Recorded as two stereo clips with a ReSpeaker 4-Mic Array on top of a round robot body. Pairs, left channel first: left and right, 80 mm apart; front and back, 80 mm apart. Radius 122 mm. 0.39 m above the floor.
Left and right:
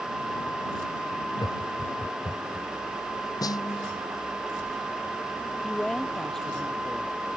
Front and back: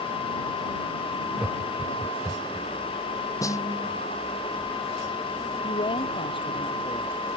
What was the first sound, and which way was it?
Laughter, 105° left.